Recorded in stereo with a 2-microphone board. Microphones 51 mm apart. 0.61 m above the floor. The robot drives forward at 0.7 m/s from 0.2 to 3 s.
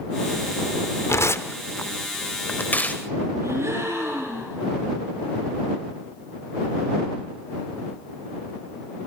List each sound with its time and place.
1.1 s tearing paper: 65° left (ahead or behind), 1.1 m; by 3.0 s 30° left (ahead or behind), 1.9 m
3.4 s a gasp: 90° right, 8.5 m